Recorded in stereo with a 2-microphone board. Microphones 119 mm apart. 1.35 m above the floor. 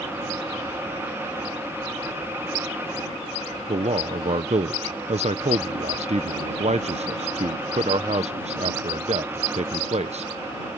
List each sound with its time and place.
3.7 s a man speaking: 60° right (ahead or behind)